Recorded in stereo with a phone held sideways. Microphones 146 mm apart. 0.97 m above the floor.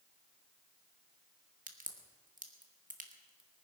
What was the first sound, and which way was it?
A crack, 65° right (ahead or behind).